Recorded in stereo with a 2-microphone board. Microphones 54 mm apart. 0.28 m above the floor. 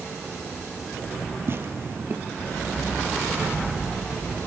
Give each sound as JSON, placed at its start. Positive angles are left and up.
{"t": 1.5, "sound": "tearing paper", "side_deg": -45, "distance_m": 3.0}